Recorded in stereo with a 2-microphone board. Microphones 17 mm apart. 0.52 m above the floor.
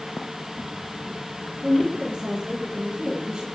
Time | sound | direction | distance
1.6 | a woman speaking | 50° right (ahead or behind) | 8 m